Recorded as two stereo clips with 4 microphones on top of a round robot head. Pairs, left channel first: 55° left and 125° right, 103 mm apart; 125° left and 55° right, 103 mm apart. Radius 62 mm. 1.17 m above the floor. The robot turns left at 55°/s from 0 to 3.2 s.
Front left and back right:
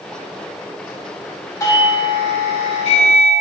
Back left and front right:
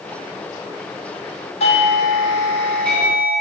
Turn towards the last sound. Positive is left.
turn(degrees=25)